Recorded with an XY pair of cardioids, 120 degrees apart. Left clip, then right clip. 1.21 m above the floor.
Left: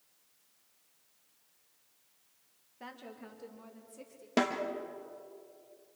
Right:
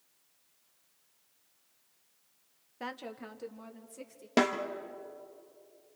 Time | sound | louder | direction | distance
2.8 | a woman speaking | right 6 dB | 50° right | 1.2 m
4.4 | a snare drum | right 3 dB | 20° right | 1.7 m